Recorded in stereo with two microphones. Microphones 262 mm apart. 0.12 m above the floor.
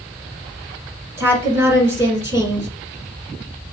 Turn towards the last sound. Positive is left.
turn(degrees=-10)  # may be behind; listen again after turning